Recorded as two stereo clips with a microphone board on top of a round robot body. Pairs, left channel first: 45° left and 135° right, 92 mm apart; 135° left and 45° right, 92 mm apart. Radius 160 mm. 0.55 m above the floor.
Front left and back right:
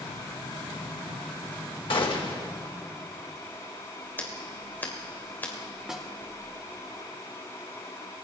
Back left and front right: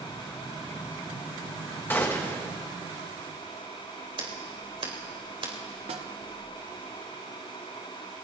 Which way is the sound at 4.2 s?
20° right.